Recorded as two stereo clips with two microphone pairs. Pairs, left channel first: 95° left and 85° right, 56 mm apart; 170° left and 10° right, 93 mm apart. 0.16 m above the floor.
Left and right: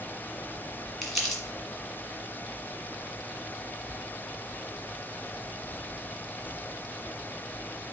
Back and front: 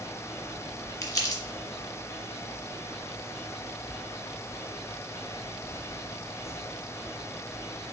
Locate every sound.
1.0 s crumpling: 170° right, 1.7 m